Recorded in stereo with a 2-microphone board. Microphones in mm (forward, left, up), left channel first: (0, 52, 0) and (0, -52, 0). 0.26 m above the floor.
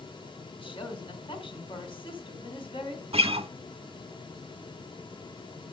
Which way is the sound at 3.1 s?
65° right (ahead or behind).